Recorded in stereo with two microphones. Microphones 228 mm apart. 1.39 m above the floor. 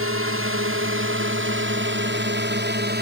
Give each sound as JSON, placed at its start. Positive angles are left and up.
{"t": 0.0, "sound": "a drone", "side_deg": -65}